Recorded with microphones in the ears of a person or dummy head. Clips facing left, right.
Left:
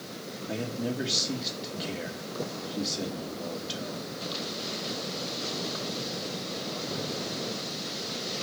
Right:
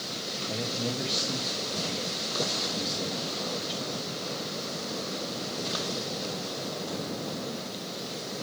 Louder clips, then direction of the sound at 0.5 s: Left 1 dB; 10° left (ahead or behind).